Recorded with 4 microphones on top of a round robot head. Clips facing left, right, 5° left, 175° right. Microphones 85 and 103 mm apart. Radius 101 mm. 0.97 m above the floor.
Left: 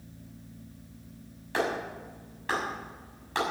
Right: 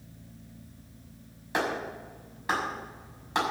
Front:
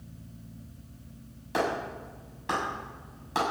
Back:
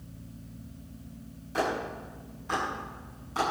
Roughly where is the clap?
Ahead.